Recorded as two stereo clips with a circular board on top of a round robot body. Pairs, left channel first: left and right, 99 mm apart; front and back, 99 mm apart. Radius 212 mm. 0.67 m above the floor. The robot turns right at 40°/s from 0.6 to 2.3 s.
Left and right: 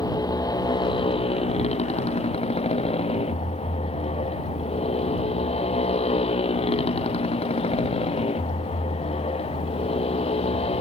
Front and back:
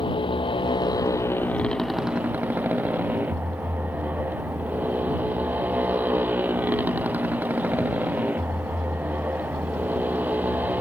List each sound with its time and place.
0.0 s a motorcycle: 40° left; by 10.8 s 105° left